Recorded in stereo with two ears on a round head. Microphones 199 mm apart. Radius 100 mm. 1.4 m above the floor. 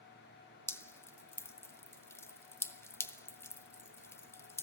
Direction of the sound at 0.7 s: 10° left (ahead or behind).